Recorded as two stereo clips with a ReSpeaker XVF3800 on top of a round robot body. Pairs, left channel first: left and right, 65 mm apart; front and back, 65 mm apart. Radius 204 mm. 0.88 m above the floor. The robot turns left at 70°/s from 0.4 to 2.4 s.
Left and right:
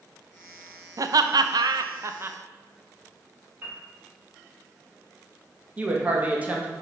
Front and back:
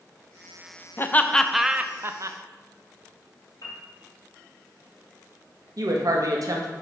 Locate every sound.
1.0 s laughter: 55° right, 0.8 m; by 2.4 s 155° right, 0.8 m
3.6 s a piano: 35° right, 2.5 m
5.8 s a woman speaking: 160° right, 1.6 m